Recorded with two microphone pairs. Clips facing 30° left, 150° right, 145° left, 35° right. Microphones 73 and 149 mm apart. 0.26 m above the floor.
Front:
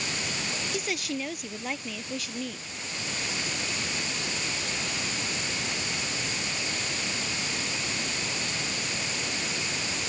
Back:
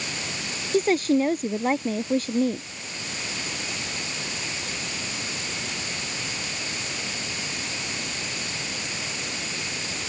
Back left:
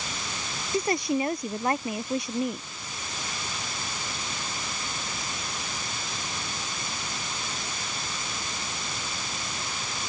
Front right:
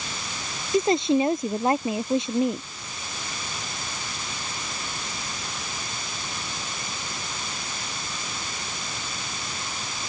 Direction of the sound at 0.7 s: 100° right.